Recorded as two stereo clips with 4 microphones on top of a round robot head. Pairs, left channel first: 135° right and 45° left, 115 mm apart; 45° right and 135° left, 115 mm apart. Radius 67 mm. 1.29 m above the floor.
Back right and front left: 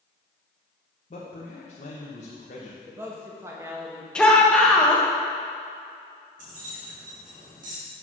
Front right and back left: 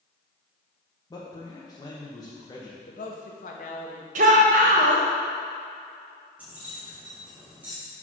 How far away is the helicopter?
No helicopter in this recording.